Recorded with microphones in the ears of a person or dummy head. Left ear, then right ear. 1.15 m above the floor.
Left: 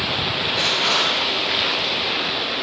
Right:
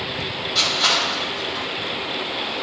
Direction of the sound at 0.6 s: 55° right (ahead or behind).